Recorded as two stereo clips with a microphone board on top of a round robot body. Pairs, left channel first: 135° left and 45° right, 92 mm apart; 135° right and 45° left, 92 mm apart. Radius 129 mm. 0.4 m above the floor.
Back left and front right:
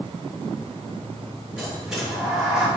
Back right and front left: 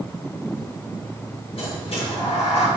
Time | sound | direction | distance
1.6 | a sliding door | 130° right | 4 m